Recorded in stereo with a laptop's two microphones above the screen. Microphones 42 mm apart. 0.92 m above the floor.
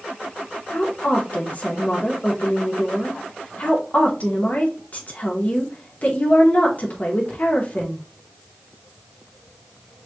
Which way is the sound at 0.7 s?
40° left (ahead or behind).